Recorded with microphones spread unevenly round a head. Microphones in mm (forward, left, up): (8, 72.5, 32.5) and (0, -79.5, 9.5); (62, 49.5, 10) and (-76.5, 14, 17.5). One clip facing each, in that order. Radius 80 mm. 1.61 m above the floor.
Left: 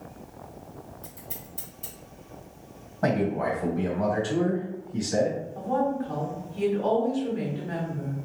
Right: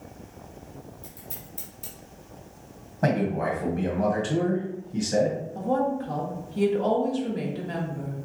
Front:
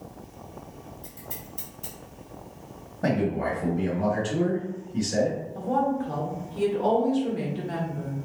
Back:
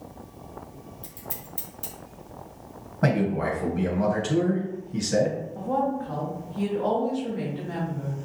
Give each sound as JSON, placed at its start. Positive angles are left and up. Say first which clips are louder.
{"t": 1.0, "sound": "scissors", "louder": "left 1 dB, back 1 dB", "azimuth_deg": 175, "distance_m": 2.0}
{"t": 3.0, "sound": "a man speaking", "louder": "even, back 1 dB", "azimuth_deg": -165, "distance_m": 1.5}
{"t": 5.5, "sound": "a woman speaking", "louder": "right 1 dB, front 2 dB", "azimuth_deg": -45, "distance_m": 1.8}